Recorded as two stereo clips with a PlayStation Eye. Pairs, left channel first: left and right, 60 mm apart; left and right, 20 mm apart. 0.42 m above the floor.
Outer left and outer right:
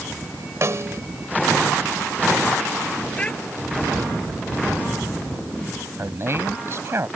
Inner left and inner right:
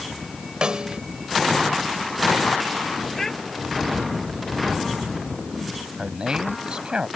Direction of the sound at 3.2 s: 20° left (ahead or behind).